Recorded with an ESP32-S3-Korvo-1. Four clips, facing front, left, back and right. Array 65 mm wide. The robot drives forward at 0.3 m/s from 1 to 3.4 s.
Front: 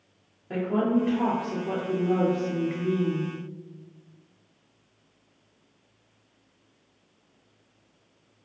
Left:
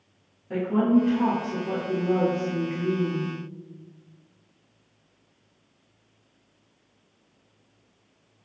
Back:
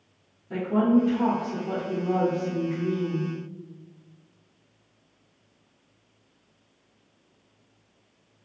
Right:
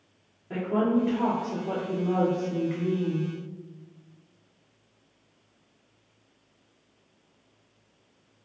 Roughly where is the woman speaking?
Ahead.